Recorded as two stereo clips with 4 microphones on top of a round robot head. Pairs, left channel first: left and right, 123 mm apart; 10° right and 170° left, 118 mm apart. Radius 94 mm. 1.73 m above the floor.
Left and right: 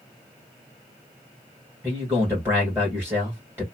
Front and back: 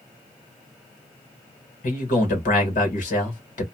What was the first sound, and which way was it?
A man speaking, 10° right.